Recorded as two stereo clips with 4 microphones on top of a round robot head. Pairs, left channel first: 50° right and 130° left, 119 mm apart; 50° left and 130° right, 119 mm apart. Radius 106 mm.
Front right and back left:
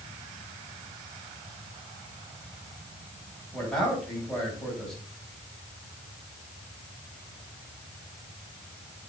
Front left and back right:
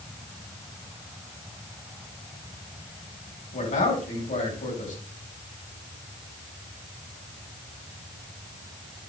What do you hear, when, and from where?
3.5 s a man speaking: 35° left, 4.5 m